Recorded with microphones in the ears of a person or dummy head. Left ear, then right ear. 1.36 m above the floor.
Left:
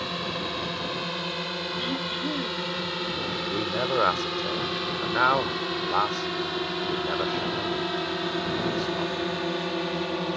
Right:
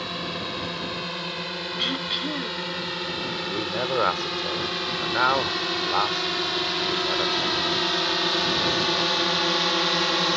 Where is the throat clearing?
35° right (ahead or behind).